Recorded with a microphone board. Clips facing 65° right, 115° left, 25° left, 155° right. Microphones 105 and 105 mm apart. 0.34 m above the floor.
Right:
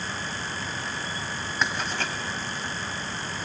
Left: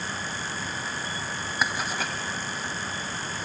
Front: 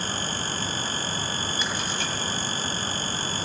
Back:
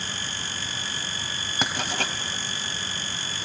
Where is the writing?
165° right, 1.5 m.